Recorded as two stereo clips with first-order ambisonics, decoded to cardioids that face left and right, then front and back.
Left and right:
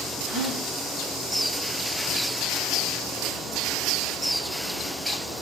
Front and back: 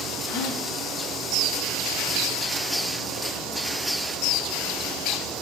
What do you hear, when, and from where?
0.3 s a gasp: 30° right, 4.5 m